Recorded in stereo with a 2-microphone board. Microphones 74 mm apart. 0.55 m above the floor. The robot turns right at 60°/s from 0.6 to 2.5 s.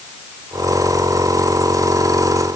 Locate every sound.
Only background noise.